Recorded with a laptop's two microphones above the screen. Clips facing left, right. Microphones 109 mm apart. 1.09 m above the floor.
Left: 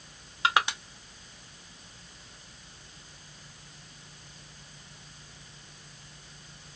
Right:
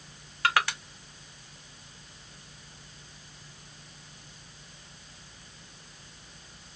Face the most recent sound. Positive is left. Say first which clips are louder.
# even
turn(degrees=20)  # may be behind; listen again after turning